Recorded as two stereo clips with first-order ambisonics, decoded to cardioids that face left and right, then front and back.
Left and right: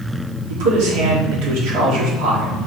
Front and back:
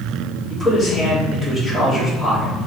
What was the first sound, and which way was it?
A man speaking, 105° right.